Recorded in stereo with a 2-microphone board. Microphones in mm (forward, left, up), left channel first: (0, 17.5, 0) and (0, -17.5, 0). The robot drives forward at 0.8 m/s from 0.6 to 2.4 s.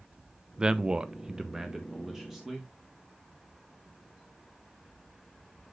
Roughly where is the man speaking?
Right.